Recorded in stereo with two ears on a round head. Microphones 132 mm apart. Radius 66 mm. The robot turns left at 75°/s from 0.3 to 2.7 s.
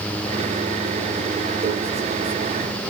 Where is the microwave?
65° right (ahead or behind), 2.5 m; by 1.7 s 75° right (ahead or behind), 2.5 m.